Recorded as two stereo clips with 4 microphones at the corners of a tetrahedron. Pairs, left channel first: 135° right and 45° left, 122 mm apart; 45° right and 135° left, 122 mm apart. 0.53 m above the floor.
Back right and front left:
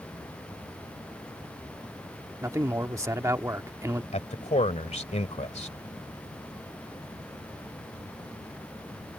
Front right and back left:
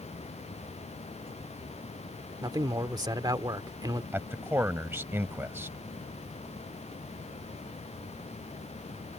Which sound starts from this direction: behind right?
A man speaking, at 4.1 s.